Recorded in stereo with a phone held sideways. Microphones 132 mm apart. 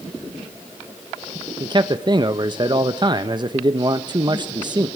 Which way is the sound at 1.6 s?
35° right (ahead or behind).